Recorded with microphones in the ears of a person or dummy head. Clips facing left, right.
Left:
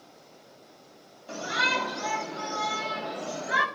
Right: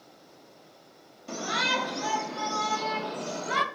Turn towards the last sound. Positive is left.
turn(degrees=-55)  # may be behind; listen again after turning